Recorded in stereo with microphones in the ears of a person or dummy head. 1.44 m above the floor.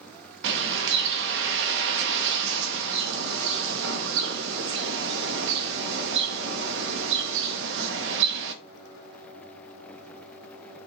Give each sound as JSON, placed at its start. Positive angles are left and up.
{"t": 0.4, "sound": "a bird", "side_deg": -70, "distance_m": 1.2}